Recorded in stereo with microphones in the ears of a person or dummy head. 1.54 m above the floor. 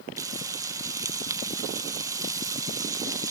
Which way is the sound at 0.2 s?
15° right (ahead or behind).